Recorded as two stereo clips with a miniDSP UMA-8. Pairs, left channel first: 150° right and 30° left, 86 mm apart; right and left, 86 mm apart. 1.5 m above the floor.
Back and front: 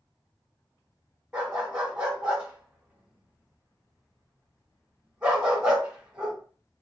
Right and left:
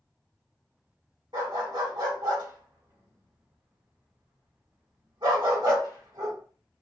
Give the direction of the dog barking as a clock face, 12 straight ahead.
9 o'clock.